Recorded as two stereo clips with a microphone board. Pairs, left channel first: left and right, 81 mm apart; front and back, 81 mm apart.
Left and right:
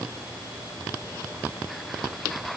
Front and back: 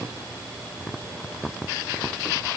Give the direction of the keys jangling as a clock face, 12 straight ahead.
I don't hear keys jangling.